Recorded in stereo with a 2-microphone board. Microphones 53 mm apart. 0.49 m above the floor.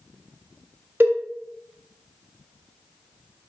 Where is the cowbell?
55° right (ahead or behind), 0.5 m.